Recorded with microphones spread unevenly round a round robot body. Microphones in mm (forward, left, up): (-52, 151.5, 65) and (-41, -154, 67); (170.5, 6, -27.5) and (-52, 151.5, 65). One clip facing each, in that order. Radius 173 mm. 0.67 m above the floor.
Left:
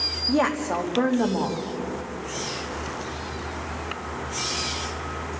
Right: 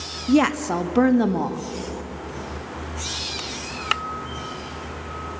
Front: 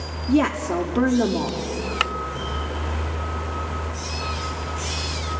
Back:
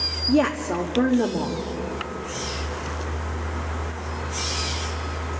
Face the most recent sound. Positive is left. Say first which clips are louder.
# right 5 dB, front 1 dB
turn(degrees=-100)